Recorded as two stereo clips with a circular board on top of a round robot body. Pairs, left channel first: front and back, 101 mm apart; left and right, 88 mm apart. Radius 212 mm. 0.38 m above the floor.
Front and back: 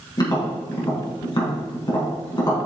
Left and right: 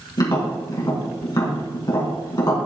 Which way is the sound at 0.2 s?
50° left.